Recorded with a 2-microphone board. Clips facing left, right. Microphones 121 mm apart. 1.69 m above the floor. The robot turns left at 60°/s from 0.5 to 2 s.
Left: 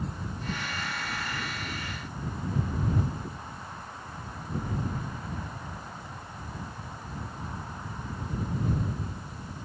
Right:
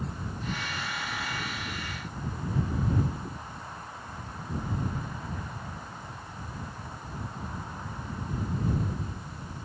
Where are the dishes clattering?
No dishes clattering in this recording.